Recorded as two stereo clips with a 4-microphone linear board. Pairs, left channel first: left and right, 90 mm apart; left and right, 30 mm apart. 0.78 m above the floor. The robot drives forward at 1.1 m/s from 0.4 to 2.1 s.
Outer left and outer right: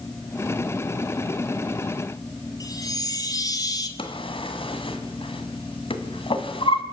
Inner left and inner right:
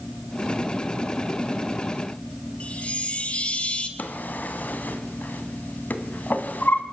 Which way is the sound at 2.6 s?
40° left (ahead or behind).